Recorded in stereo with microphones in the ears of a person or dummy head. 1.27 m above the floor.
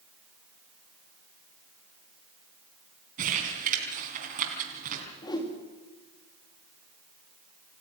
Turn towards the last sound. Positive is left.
turn(degrees=20)  # may be behind; listen again after turning